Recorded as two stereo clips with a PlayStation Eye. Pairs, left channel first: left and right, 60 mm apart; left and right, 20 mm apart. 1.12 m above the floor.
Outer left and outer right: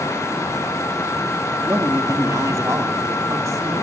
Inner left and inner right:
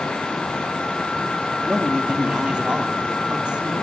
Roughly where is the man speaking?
Right.